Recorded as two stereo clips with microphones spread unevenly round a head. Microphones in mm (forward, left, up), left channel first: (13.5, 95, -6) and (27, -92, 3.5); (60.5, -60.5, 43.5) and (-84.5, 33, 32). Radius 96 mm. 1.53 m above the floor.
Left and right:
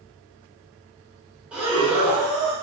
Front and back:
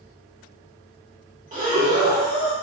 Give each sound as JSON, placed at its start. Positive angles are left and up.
{"t": 1.5, "sound": "breathing", "azimuth_deg": -170, "distance_m": 0.9}